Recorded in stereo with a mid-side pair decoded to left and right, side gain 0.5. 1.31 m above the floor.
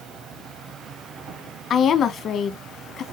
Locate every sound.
0.0 s an insect: 70° right, 1.2 m
1.7 s a woman speaking: 55° left, 0.9 m